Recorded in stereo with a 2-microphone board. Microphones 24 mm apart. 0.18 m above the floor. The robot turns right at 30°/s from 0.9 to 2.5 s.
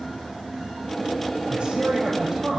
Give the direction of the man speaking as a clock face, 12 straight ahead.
2 o'clock.